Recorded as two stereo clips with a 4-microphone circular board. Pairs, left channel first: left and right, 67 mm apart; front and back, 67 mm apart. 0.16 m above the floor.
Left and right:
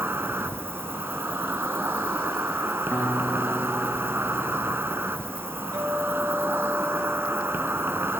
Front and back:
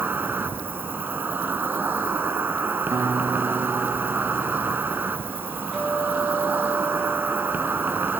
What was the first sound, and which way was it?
An insect, 130° right.